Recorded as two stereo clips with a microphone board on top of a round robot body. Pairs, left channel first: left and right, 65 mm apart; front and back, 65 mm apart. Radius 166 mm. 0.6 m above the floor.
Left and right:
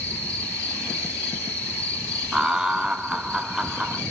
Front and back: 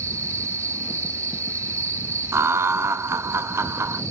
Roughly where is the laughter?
Behind.